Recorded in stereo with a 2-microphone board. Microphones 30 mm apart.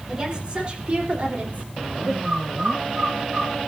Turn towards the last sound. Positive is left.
turn(degrees=-45)  # may be behind; listen again after turning